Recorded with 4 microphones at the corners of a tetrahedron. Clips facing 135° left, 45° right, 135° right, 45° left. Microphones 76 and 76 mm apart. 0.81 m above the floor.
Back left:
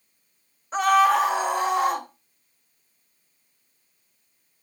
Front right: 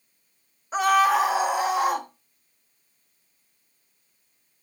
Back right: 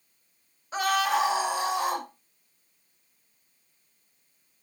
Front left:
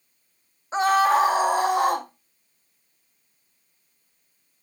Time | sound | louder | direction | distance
0.7 | a scream | back left 1 dB, front left 6 dB | 40° left | 1.0 m